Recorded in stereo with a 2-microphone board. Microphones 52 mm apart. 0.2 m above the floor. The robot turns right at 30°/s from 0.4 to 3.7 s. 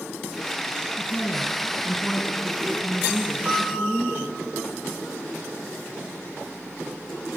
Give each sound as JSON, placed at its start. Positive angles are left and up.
{"t": 0.9, "sound": "a woman speaking", "azimuth_deg": 160, "distance_m": 1.8}
{"t": 3.5, "sound": "a piano", "side_deg": -20, "distance_m": 4.5}